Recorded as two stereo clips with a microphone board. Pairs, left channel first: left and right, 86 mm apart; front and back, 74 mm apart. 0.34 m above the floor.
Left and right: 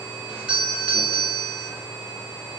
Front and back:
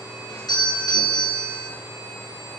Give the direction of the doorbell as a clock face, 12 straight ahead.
12 o'clock.